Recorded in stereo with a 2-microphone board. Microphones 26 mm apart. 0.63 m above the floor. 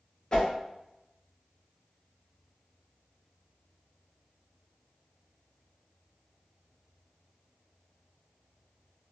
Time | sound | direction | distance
0.3 | a whoosh | 35° left (ahead or behind) | 0.6 m